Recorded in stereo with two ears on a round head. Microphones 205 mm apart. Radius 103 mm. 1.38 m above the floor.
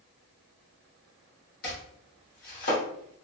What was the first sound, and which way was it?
Chopping, 40° left (ahead or behind).